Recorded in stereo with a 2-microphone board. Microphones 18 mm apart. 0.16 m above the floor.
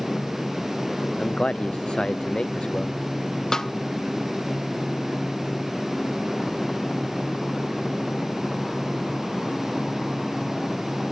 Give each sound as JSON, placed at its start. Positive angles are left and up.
{"t": 1.2, "sound": "a man speaking", "side_deg": 65}
{"t": 3.5, "sound": "a snare drum", "side_deg": 30}